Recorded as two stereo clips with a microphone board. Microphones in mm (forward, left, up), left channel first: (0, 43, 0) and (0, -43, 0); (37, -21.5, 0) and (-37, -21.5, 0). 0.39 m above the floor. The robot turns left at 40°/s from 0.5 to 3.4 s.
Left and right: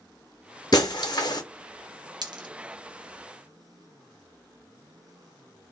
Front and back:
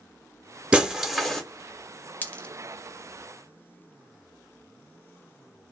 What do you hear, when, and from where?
0.7 s breaking glass: 110° left, 0.8 m; by 1.4 s 80° left, 0.8 m
2.2 s a dropped coin: 65° right, 0.6 m; by 2.5 s 75° right, 0.6 m